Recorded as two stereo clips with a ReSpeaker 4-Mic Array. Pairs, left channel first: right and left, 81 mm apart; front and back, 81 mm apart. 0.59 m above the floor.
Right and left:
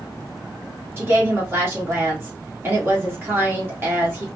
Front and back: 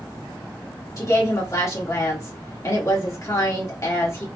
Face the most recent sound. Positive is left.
turn(degrees=35)